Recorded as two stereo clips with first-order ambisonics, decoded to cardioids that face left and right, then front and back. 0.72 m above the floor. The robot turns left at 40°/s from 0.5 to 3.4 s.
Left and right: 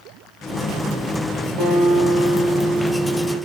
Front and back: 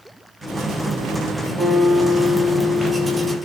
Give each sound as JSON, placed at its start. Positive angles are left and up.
{"t": 1.6, "sound": "a guitar", "azimuth_deg": -75, "distance_m": 1.8}